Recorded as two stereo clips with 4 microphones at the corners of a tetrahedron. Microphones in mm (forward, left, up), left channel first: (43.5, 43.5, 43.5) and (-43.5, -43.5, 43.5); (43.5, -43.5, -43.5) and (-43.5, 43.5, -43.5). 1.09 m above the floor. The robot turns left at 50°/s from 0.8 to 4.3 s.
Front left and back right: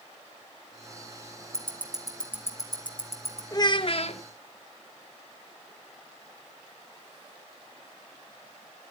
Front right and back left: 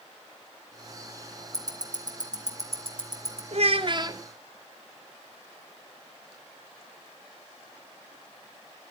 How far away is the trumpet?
I don't hear a trumpet.